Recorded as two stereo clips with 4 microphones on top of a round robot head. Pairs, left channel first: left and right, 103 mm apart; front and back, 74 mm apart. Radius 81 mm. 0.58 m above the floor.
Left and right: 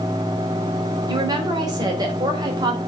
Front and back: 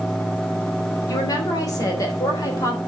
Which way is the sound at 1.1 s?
40° right.